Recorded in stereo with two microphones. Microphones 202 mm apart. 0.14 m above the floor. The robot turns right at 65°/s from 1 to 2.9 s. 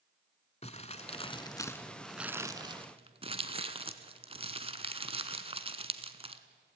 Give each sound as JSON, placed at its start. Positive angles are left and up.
{"t": 0.6, "sound": "crumpling", "side_deg": 30, "distance_m": 0.9}